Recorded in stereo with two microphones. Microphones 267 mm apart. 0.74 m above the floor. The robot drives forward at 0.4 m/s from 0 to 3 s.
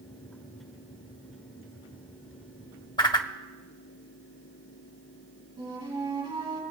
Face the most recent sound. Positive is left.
turn(degrees=-15)  # may be behind; listen again after turning